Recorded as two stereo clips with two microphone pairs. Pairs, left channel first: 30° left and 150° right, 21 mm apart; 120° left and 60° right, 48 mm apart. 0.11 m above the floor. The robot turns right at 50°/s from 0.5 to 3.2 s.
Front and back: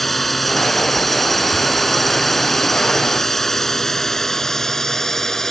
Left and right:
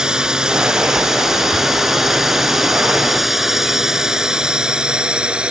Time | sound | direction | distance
0.0 | a drone | 20° right | ?